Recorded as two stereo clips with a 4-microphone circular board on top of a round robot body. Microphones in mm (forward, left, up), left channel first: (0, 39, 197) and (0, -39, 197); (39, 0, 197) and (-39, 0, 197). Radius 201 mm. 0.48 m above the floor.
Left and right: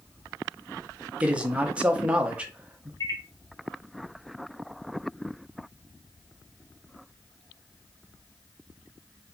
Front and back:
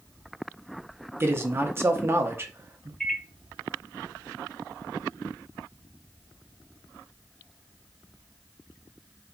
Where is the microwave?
85° left, 0.8 m.